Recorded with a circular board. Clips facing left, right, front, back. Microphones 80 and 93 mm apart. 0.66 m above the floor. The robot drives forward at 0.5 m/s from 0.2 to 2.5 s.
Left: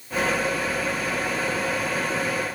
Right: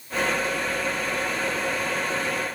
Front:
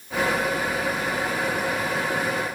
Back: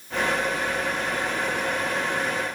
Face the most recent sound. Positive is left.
No sound to turn to.